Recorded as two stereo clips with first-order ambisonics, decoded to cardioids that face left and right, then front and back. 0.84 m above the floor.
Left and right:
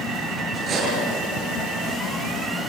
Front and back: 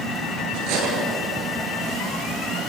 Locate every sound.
0.5 s cutlery clinking: 155° right, 8 m